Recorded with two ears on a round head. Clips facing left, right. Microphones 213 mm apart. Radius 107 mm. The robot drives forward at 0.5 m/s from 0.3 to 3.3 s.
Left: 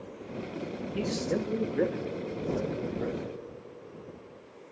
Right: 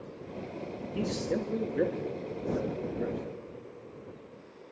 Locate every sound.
0.9 s a man speaking: centre (ahead or behind), 1.7 m